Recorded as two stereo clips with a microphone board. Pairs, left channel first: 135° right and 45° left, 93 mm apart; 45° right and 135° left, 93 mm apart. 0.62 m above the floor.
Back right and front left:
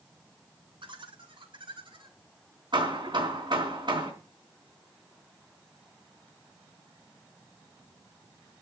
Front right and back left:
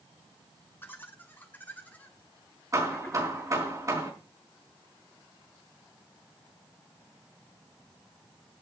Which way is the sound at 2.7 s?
80° left.